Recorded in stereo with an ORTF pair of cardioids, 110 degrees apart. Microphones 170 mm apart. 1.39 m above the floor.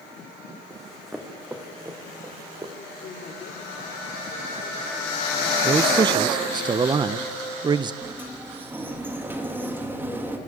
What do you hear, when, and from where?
0.7 s running footsteps: 5° left, 5 m; by 2.7 s 25° right, 6 m
3.0 s a man speaking: 50° left, 4.5 m
5.6 s a man speaking: 25° right, 0.8 m
8.0 s a sliding door: 10° right, 3 m